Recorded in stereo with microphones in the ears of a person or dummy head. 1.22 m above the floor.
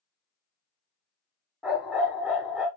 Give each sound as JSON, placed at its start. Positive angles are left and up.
{"t": 1.6, "sound": "a dog barking", "side_deg": 0, "distance_m": 1.1}